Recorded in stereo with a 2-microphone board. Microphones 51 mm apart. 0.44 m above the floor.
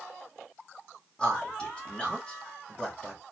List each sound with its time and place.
1.2 s a man speaking: 20° left (ahead or behind), 1.5 m